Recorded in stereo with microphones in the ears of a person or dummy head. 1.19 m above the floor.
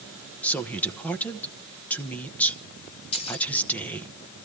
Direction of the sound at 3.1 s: 35° left (ahead or behind).